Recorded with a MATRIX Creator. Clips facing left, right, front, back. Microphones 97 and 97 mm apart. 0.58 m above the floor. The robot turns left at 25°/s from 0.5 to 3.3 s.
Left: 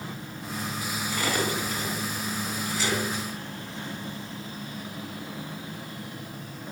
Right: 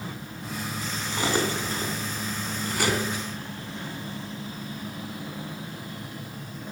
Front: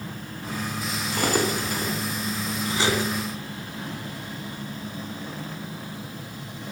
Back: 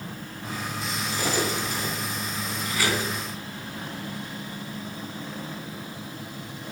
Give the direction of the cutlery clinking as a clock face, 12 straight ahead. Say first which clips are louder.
Right 2 dB, front 4 dB; 1 o'clock.